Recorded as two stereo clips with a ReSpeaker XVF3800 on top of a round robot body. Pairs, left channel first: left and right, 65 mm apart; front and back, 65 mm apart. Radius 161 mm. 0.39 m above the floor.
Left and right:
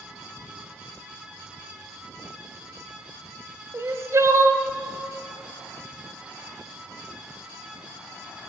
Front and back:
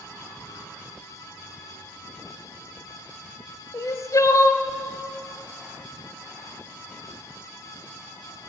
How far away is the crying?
About 0.7 m.